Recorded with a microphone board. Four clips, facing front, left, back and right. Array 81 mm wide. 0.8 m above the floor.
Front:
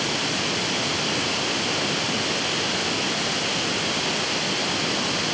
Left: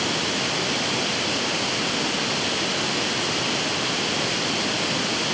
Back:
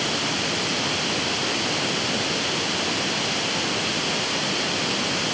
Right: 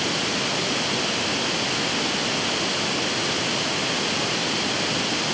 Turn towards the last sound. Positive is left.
No sound to turn to.